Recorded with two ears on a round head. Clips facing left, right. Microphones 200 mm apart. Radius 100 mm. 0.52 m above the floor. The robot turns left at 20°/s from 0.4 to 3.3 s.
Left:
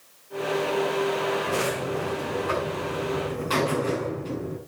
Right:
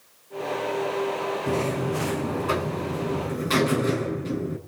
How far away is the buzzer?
About 6 m.